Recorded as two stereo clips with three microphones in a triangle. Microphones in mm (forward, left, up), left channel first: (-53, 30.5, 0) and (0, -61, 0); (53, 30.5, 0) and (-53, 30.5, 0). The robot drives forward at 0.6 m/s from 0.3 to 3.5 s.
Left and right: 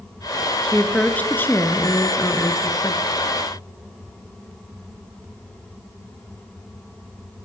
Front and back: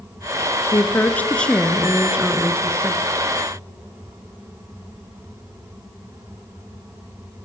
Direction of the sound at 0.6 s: 40° left.